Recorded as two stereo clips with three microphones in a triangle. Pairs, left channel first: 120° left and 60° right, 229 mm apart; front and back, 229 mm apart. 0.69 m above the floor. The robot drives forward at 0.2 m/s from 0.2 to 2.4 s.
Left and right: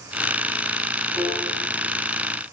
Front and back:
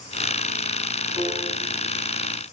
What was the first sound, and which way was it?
A piano, 155° right.